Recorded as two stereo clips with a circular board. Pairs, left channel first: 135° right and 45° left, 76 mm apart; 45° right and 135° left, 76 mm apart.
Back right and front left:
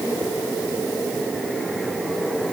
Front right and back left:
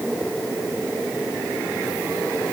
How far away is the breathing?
I don't hear breathing.